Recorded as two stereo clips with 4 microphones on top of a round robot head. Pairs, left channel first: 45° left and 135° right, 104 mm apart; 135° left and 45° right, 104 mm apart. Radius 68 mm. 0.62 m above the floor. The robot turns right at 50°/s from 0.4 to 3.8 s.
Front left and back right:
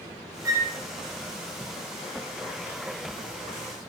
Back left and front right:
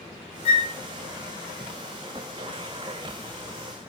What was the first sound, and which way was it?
A flute, 165° left.